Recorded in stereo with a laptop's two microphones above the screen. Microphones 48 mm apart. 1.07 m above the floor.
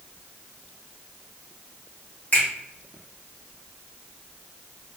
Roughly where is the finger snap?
Left.